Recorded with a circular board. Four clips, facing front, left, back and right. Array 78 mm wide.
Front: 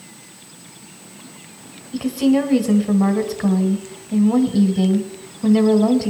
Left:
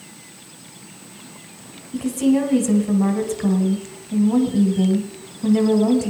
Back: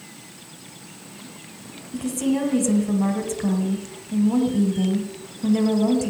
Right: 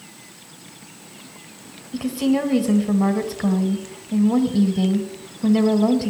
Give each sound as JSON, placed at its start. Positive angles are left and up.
{"t": 1.9, "sound": "a woman speaking", "azimuth_deg": -30, "distance_m": 1.4}